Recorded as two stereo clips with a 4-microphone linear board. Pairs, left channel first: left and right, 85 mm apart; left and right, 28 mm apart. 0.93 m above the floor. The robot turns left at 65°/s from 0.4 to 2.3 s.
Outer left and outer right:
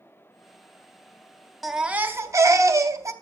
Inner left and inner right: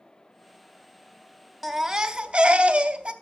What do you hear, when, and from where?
1.6 s a baby crying: straight ahead, 0.6 m; by 3.1 s 45° right, 0.6 m